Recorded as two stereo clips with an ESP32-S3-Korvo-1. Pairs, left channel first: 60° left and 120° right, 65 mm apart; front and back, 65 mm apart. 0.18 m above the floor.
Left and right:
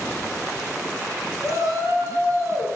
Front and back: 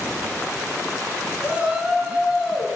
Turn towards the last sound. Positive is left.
turn(degrees=-95)